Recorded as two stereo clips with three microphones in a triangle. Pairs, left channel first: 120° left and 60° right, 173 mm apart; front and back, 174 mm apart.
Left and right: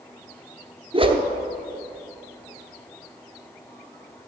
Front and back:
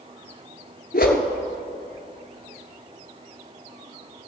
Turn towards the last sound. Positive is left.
turn(degrees=-5)